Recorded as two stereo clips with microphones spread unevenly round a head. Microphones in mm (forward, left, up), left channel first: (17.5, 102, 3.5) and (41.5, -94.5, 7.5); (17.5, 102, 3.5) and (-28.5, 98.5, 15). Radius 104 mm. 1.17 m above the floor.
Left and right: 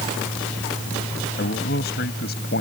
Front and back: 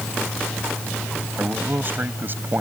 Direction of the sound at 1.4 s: 145° left.